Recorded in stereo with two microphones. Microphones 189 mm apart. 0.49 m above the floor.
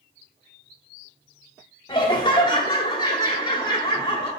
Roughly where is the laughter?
Left.